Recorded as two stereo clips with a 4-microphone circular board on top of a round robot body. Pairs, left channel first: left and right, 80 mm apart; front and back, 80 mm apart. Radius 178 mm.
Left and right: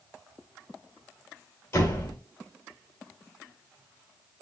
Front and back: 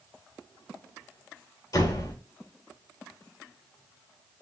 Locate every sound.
1.7 s a door slam: 35° left, 2.0 m